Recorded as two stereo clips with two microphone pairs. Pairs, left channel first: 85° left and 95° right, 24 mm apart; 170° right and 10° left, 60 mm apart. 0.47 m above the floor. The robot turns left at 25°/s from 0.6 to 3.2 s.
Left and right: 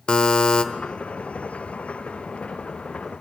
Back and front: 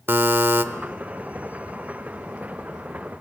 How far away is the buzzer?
About 1.0 m.